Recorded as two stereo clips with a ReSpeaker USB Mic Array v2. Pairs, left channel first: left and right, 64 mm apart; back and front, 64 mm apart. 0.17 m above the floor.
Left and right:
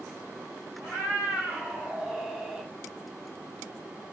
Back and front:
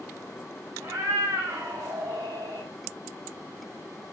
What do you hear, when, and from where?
0.8 s a cat meowing: 35° right, 1.8 m; by 2.7 s straight ahead, 1.4 m